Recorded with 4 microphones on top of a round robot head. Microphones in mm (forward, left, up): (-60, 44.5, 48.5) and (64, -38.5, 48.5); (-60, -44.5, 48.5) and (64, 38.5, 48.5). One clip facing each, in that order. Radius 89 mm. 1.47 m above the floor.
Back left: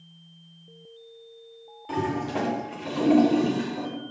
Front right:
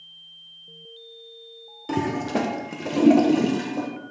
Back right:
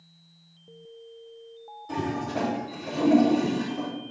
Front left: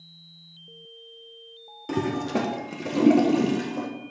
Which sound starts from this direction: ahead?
A toilet flushing, at 1.9 s.